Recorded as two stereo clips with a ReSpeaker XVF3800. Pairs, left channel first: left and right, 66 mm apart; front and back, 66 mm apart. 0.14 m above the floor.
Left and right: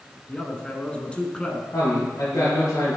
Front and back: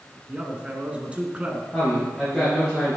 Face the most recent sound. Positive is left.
turn(degrees=85)